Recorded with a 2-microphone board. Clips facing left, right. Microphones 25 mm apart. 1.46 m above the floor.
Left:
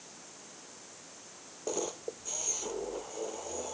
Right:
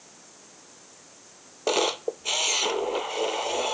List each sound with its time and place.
1.7 s a camera shutter: 80° right